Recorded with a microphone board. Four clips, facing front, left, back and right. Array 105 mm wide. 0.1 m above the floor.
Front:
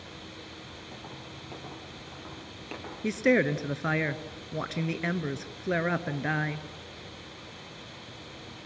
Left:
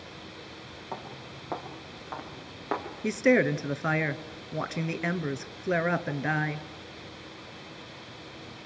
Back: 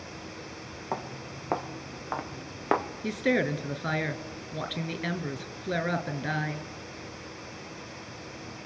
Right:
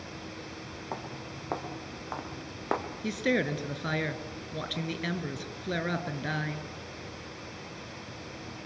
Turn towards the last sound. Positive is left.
turn(degrees=60)